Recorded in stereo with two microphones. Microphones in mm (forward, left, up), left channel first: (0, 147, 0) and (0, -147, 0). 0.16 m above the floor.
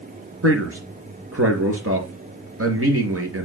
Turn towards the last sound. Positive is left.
turn(degrees=-45)  # may be behind; listen again after turning